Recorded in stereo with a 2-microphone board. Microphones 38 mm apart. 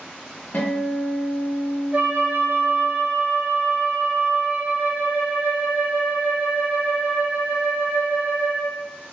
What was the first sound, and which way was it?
A guitar, 50° left (ahead or behind).